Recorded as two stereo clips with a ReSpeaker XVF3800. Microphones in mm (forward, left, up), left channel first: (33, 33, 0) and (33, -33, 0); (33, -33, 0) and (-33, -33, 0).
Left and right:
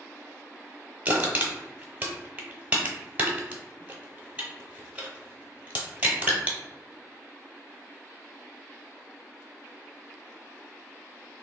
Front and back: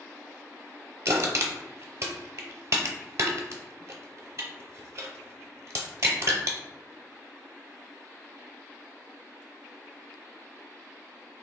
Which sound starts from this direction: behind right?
Crushing, at 1.1 s.